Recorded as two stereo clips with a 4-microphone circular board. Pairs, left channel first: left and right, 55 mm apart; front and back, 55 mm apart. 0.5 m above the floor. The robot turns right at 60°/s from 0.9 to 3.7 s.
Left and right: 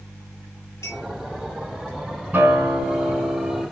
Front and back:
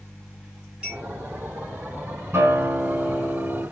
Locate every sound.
0.8 s a clink: 105° left, 6 m; by 1.0 s 115° left, 6 m
2.3 s a guitar: 150° right, 4.5 m; by 3.6 s 70° right, 4.5 m